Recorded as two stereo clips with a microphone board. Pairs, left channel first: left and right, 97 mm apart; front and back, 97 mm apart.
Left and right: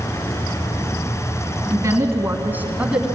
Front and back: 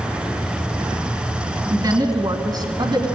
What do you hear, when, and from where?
1.7 s a woman speaking: 140° right, 2 m; by 3.1 s 170° right, 1.8 m